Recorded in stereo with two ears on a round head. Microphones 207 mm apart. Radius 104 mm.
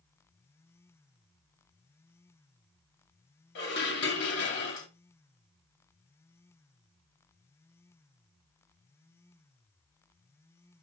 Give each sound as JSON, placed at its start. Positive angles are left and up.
{"t": 3.5, "sound": "dishes clattering", "side_deg": 55, "distance_m": 1.8}